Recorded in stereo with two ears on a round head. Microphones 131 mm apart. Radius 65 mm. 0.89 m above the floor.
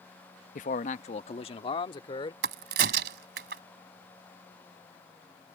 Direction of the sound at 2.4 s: 80° right.